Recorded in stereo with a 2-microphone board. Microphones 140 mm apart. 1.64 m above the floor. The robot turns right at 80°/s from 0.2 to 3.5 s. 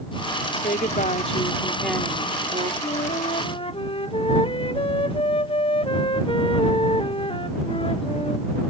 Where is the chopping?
No chopping in this recording.